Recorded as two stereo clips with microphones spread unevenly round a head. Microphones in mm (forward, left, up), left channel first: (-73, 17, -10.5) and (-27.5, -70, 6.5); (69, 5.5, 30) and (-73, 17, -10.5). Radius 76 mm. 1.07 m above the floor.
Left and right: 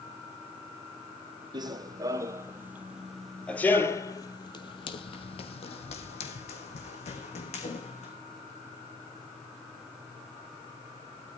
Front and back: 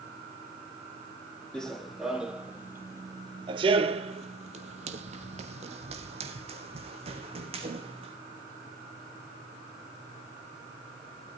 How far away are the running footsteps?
About 1.7 m.